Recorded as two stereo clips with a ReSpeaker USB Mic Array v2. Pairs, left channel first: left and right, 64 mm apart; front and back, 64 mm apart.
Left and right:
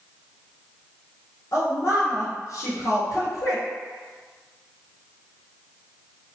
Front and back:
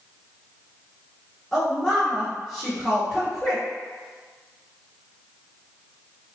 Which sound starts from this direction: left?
A woman speaking, at 1.5 s.